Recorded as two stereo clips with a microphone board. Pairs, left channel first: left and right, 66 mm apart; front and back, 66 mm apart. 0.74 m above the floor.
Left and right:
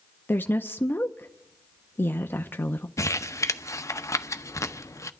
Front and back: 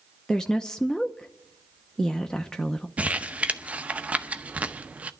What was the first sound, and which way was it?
A woman speaking, 75° left.